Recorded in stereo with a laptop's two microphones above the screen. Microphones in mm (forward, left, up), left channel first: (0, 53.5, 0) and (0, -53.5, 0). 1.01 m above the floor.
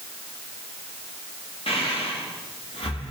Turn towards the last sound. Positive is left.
turn(degrees=60)  # may be behind; listen again after turning